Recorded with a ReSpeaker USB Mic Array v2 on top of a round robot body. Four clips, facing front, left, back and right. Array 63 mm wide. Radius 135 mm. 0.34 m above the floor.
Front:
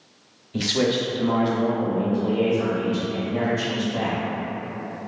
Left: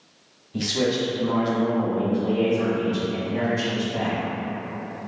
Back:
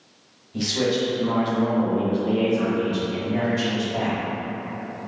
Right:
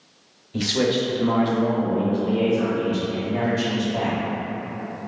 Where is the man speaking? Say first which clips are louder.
Right 2 dB, front 1 dB; 30° right, 0.9 m; by 4.2 s 170° right, 1.8 m.